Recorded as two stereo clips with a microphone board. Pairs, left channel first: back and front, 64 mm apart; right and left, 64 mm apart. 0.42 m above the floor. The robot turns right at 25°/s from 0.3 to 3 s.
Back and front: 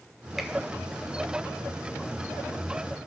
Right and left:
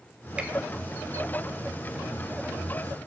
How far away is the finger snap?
About 0.6 m.